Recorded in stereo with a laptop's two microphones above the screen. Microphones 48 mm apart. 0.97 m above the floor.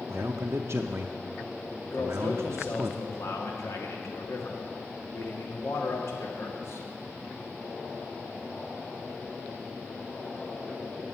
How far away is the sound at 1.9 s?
About 2 m.